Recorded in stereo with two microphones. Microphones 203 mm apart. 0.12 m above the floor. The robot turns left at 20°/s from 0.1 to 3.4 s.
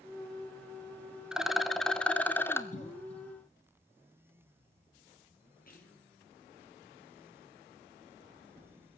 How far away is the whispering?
About 2.5 m.